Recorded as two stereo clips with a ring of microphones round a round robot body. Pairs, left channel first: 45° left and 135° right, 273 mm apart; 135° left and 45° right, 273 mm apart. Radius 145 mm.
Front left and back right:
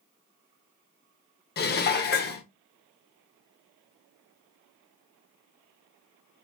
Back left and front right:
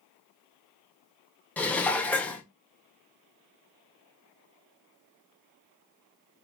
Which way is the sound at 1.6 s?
55° left.